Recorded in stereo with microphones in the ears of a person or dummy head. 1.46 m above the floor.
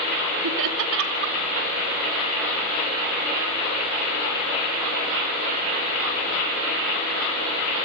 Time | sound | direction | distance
0.4 | laughter | 70° right (ahead or behind) | 3 m